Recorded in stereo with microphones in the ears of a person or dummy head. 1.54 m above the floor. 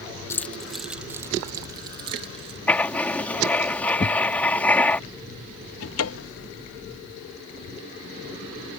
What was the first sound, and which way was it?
Keys jangling, 15° left (ahead or behind).